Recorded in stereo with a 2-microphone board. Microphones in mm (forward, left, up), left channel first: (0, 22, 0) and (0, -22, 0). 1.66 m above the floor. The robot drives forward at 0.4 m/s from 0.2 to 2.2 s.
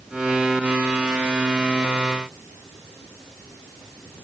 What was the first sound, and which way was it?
Only background noise.